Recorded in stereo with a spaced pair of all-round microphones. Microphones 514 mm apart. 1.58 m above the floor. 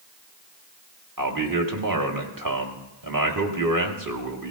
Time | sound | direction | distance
1.2 | a man speaking | 40° right (ahead or behind) | 1.6 m